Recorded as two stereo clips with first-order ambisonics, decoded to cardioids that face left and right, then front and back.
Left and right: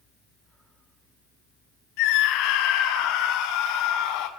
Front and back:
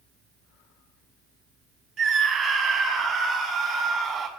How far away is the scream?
About 5 m.